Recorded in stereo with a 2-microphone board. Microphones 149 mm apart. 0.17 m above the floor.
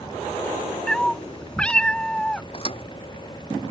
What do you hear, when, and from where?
0.9 s a cat meowing: 5° left (ahead or behind)
2.5 s a thud: 40° left (ahead or behind)